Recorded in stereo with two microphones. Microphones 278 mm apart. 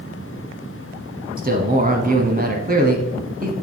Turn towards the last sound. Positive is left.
turn(degrees=-30)  # may be behind; listen again after turning